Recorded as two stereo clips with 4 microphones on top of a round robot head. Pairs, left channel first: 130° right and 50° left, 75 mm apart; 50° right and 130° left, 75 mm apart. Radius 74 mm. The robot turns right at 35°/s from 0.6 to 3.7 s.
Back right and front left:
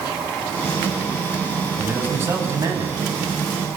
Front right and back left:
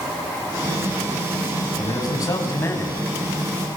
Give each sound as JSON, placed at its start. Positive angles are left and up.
{"t": 1.8, "sound": "a man speaking", "azimuth_deg": -20, "distance_m": 6.0}